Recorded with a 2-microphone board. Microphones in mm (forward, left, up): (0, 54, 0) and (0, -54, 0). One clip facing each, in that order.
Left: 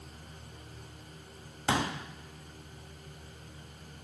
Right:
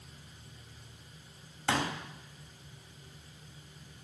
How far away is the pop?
About 0.7 m.